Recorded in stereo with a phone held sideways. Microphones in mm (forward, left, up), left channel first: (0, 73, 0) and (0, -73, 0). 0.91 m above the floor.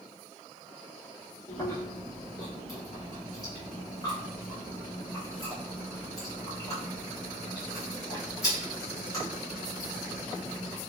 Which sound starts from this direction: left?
Chewing, at 1.5 s.